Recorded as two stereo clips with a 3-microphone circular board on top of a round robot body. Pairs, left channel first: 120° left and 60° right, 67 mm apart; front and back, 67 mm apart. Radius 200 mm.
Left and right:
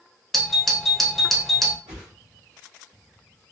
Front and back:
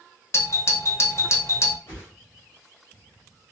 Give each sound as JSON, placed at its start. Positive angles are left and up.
{"t": 0.3, "sound": "a doorbell", "azimuth_deg": 35, "distance_m": 0.8}
{"t": 1.9, "sound": "a whoosh", "azimuth_deg": -50, "distance_m": 1.0}